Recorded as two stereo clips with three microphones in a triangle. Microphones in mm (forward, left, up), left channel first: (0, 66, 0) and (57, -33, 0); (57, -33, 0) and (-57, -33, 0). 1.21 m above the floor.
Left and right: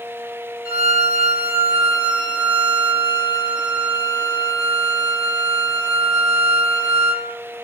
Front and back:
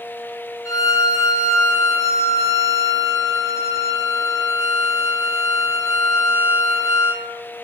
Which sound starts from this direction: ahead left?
A violin, at 0.7 s.